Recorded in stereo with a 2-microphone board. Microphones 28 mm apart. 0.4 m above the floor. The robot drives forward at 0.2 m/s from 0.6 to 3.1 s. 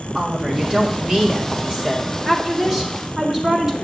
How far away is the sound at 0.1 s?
About 1.4 m.